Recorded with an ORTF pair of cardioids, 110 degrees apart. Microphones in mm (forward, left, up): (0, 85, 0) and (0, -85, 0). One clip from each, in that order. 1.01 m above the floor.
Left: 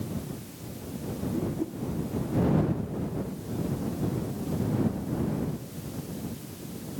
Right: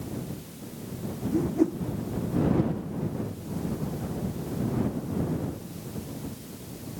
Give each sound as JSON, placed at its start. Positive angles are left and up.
{"t": 1.3, "sound": "a whoosh", "azimuth_deg": -55}